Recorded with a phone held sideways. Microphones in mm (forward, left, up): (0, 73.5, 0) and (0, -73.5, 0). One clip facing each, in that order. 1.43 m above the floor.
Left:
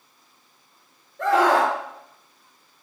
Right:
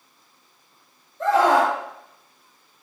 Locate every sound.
1.2 s a scream: 85° left, 4.5 m